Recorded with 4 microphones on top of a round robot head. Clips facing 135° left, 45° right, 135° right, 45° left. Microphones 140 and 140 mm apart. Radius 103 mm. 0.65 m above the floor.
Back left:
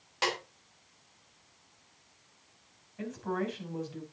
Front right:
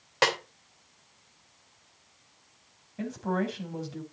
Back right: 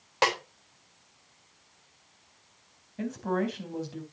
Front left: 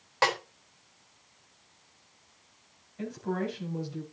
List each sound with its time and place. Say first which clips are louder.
0.2 s a snare drum: front right 6 dB, back right 1 dB; 65° right, 3.5 m
3.0 s a woman speaking: front right 4 dB, back right 3 dB; 95° right, 4 m